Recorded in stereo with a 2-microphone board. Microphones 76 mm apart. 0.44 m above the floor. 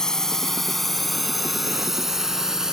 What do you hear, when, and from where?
0.0 s a drone: 10° left (ahead or behind); by 2.7 s 5° right (ahead or behind)